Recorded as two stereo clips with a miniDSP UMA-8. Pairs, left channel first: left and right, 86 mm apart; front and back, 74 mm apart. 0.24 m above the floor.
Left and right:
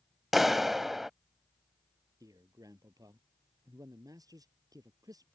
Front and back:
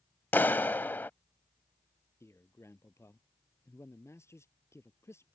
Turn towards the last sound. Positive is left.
turn(degrees=-50)